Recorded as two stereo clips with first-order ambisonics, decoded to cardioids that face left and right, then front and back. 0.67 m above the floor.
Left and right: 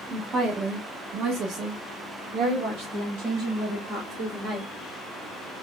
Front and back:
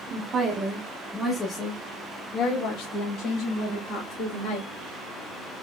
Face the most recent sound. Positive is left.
turn(degrees=-30)